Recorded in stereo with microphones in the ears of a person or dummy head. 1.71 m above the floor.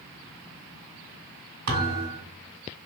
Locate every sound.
1.7 s a thud: 50° right (ahead or behind), 1.7 m